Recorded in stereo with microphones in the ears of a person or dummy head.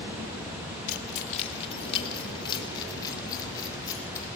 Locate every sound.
0.9 s keys jangling: 45° left (ahead or behind), 1.5 m; by 4.3 s 20° left (ahead or behind), 4.5 m